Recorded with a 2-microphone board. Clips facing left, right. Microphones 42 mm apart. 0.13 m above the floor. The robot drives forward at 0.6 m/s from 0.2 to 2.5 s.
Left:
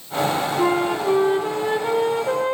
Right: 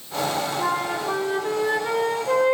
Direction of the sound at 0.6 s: 40° left (ahead or behind).